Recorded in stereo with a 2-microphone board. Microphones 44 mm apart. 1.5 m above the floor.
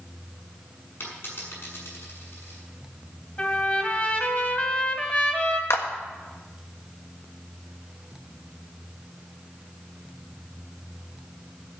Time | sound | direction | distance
1.0 | a dropped coin | 55° left (ahead or behind) | 6.5 m
3.4 | a trumpet | 30° left (ahead or behind) | 2.0 m
5.7 | a clap | 75° left (ahead or behind) | 1.5 m